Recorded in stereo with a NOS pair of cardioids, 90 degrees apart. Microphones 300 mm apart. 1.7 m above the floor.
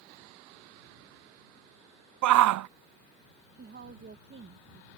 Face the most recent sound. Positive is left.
turn(degrees=-35)